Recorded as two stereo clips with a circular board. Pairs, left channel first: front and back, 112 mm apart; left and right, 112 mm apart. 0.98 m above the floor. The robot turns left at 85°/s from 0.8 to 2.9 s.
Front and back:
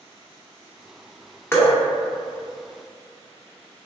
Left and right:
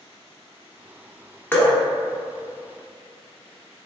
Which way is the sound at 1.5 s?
45° left.